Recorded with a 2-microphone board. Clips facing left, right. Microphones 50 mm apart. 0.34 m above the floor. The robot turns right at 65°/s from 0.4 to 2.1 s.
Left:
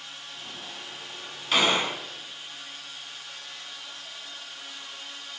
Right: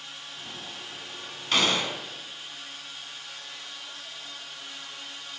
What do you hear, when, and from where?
1.5 s a gunshot: 10° left, 0.5 m; by 2.0 s 40° left, 0.5 m